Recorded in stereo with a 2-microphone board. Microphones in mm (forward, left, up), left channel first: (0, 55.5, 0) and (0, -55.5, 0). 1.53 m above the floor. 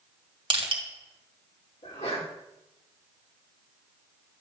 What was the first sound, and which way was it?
Crushing, 50° right (ahead or behind).